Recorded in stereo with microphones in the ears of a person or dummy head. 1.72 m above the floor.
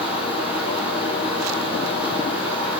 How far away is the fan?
About 0.7 m.